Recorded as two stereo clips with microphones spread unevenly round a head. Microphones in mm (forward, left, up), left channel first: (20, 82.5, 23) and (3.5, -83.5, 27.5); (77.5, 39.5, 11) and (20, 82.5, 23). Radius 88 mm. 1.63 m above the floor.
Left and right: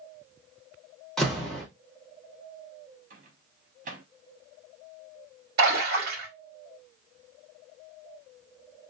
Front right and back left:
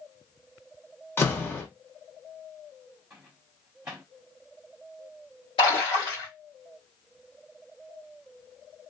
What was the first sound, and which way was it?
A door slam, straight ahead.